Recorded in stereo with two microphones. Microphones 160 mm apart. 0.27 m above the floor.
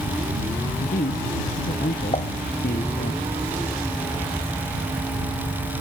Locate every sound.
0.8 s a man speaking: 75° left (ahead or behind)
2.1 s dishes clattering: 40° left (ahead or behind)